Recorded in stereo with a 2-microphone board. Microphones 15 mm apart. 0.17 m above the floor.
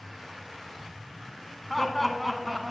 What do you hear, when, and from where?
1.7 s laughter: 15° left (ahead or behind), 1.2 m; by 2.7 s 15° right (ahead or behind), 1.4 m